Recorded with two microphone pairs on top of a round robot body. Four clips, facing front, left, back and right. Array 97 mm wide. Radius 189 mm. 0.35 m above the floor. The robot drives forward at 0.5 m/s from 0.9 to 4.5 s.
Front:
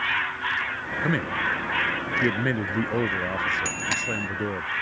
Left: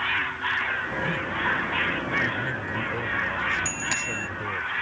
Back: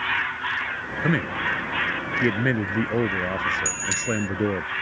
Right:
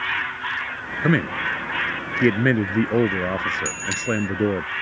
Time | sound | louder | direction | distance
1.0 | a man speaking | right 9 dB, back 1 dB | 90° right | ?
3.6 | a bicycle bell | right 5 dB, back 1 dB | 20° left | ?